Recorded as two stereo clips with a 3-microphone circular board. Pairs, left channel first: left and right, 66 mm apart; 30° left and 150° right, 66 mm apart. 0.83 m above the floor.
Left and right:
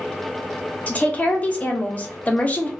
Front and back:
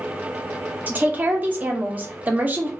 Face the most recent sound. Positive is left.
turn(degrees=155)